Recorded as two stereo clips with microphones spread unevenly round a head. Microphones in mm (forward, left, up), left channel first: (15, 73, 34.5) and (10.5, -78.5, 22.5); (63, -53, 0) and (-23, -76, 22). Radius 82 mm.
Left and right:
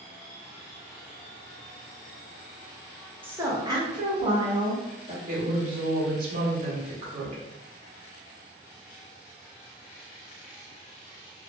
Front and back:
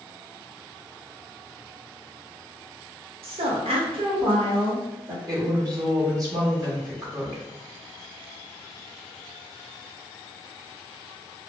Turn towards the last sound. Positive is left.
turn(degrees=-120)